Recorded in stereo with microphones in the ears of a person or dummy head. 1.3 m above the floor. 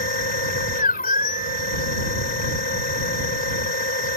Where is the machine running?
50° left (ahead or behind).